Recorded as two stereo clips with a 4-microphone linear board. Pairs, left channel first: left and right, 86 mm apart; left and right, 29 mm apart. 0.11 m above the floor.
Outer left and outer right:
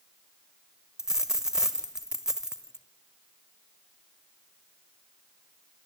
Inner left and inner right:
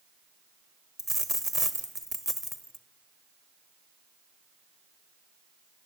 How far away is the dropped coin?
About 1.4 m.